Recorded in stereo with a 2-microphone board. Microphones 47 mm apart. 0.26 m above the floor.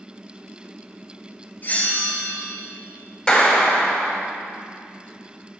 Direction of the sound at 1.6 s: 35° left (ahead or behind).